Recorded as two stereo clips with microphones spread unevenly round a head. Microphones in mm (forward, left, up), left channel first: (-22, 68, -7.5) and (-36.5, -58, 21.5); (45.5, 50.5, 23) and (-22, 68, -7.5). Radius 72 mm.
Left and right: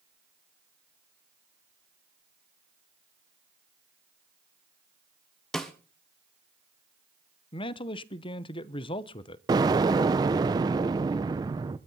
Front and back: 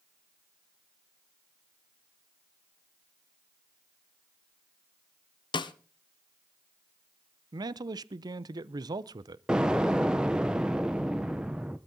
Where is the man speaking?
130° left, 0.7 m.